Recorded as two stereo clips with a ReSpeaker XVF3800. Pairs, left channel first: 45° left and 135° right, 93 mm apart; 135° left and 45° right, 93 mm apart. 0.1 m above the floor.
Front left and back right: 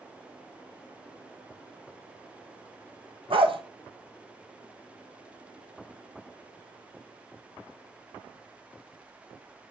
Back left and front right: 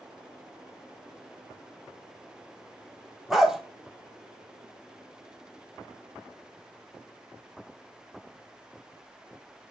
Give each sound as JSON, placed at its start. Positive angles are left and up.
{"t": 3.3, "sound": "a dog barking", "azimuth_deg": -130, "distance_m": 1.2}